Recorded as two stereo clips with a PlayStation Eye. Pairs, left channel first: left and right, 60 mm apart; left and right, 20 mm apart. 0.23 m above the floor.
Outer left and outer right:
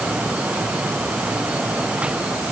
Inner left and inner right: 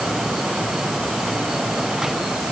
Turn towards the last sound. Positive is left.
No sound to turn to.